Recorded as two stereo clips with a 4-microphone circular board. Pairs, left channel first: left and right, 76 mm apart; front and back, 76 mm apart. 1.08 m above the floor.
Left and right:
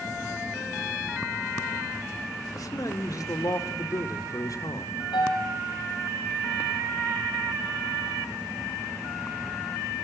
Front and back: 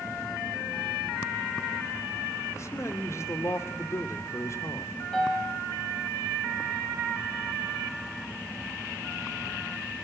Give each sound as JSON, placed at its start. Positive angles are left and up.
{"t": 2.5, "sound": "a man speaking", "azimuth_deg": 50, "distance_m": 3.0}
{"t": 5.1, "sound": "a piano", "azimuth_deg": 85, "distance_m": 8.0}